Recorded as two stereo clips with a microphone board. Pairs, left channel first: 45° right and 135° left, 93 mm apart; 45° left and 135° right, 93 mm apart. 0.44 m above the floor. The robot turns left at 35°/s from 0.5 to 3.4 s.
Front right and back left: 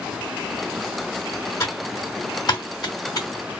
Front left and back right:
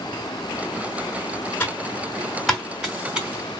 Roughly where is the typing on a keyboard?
Ahead.